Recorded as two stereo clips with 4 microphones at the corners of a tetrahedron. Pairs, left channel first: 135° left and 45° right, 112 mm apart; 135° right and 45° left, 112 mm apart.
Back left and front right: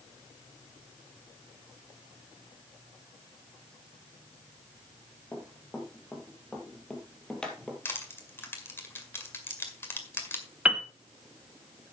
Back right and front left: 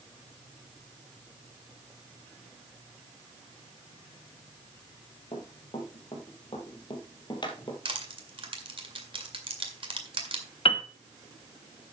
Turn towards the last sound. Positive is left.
turn(degrees=-120)